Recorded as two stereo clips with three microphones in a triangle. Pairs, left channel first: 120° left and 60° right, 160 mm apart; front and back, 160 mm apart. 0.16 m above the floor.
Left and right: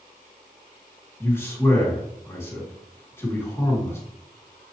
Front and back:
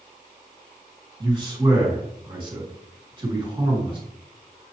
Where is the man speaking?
Straight behind, 1.8 m.